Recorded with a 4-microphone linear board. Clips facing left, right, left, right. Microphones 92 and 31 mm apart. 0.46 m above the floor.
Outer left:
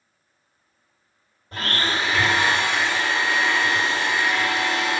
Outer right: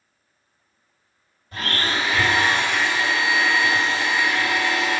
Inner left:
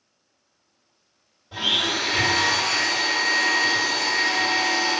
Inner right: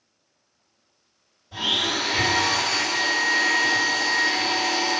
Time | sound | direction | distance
1.5 | a blender | 45° left (ahead or behind) | 1.7 m